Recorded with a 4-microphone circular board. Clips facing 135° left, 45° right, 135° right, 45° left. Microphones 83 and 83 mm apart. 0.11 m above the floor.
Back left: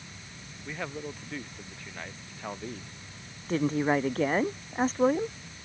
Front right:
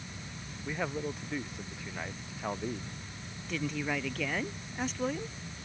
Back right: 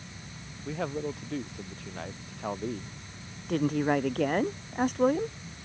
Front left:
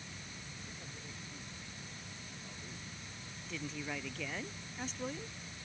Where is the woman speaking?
175° right.